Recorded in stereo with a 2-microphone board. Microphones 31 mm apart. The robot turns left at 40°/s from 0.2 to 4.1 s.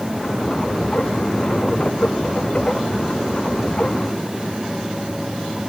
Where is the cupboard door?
No cupboard door in this recording.